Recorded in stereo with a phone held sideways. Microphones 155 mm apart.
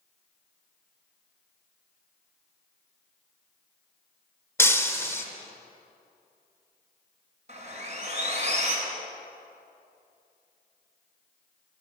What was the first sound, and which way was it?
Breaking glass, 15° left (ahead or behind).